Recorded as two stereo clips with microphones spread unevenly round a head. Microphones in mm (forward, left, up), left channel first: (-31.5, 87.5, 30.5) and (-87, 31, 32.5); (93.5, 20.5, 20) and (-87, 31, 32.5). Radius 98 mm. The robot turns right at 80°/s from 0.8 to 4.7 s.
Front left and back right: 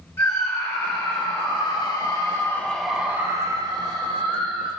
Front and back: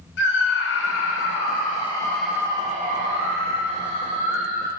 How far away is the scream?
About 3.5 m.